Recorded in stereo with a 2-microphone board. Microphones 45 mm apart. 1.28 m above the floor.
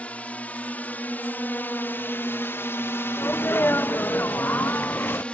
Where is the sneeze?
55° left (ahead or behind).